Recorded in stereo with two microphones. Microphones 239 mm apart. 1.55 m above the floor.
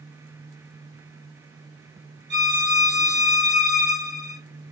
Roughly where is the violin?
Right.